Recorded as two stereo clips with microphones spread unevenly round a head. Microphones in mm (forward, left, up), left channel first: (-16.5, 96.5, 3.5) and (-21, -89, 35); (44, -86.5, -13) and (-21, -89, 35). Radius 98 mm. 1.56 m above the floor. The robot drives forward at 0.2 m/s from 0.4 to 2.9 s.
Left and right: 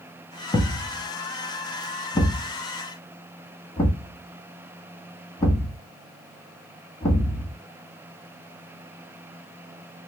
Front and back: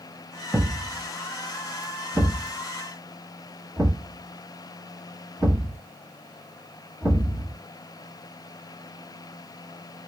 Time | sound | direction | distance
0.5 | a thud | 160° left | 1.1 m